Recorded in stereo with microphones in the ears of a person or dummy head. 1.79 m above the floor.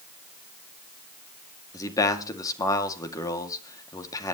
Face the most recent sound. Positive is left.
turn(degrees=20)  # may be behind; listen again after turning